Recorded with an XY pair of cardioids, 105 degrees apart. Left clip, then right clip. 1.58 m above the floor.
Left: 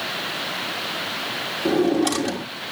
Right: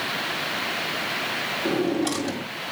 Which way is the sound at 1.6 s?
30° left.